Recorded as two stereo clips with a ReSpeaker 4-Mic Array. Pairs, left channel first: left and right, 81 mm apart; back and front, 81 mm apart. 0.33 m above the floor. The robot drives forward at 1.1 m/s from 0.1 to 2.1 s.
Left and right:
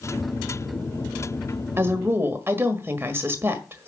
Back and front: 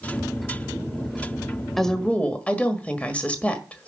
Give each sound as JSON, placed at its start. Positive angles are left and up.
{"t": 1.8, "sound": "a woman speaking", "azimuth_deg": -95, "distance_m": 1.3}